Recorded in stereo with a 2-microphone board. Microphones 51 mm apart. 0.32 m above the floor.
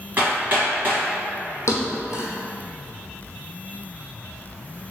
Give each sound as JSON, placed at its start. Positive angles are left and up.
{"t": 0.2, "sound": "hammering", "side_deg": -35, "distance_m": 1.6}
{"t": 1.7, "sound": "a thud", "side_deg": 70, "distance_m": 0.8}